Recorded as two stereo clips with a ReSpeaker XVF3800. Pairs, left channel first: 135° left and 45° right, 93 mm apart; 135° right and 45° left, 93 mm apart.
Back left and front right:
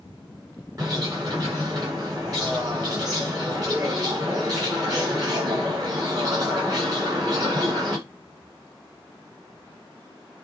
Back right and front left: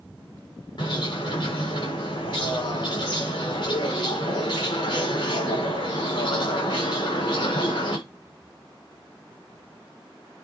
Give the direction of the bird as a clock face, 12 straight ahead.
3 o'clock.